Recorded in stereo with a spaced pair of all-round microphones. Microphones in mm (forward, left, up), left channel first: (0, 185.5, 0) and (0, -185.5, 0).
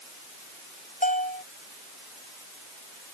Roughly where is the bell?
Left.